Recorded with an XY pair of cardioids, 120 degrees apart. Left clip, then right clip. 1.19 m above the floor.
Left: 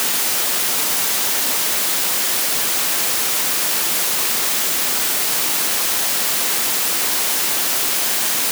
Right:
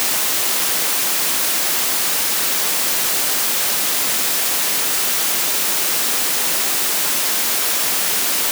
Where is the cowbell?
No cowbell in this recording.